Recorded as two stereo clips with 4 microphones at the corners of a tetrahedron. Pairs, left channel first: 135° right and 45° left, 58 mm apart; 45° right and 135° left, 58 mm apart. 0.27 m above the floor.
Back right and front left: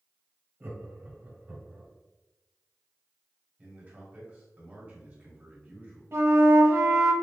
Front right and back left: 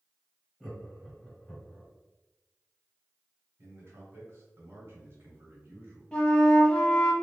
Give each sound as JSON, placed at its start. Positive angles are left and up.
{"t": 0.6, "sound": "laughter", "azimuth_deg": 55, "distance_m": 1.4}
{"t": 3.6, "sound": "a man speaking", "azimuth_deg": 105, "distance_m": 1.7}
{"t": 6.1, "sound": "a flute", "azimuth_deg": 25, "distance_m": 0.8}